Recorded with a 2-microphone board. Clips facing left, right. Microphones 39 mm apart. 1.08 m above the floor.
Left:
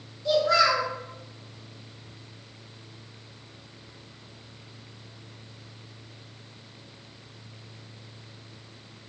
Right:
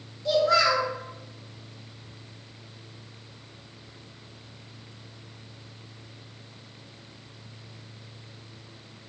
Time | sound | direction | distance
0.2 | a child speaking | centre (ahead or behind) | 0.6 m